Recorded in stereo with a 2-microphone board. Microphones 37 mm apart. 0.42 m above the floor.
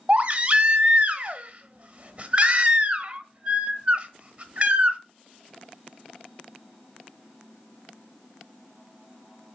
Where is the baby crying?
30° right (ahead or behind), 1.1 m.